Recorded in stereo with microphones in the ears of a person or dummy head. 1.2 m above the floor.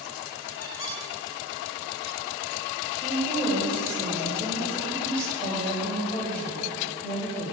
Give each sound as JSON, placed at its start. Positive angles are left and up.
{"t": 0.6, "sound": "a squeak", "side_deg": 70, "distance_m": 6.0}
{"t": 3.0, "sound": "a woman speaking", "side_deg": 10, "distance_m": 5.5}